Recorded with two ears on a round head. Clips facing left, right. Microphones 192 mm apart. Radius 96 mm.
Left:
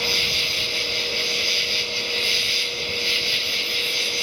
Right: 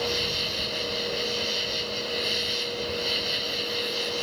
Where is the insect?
35° left (ahead or behind).